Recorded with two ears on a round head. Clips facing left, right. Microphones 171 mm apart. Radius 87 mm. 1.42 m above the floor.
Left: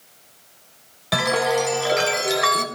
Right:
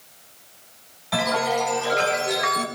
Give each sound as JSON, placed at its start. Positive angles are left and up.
{"t": 1.1, "sound": "a chime", "side_deg": 75, "distance_m": 3.0}